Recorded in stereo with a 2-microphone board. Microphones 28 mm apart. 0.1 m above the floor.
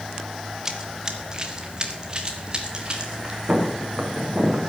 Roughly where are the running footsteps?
Right.